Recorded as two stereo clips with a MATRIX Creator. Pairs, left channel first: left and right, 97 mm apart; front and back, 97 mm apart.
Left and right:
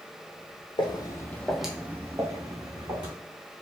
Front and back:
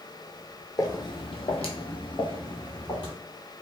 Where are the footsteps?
55° left, 0.6 m; by 3.1 s 45° right, 1.3 m.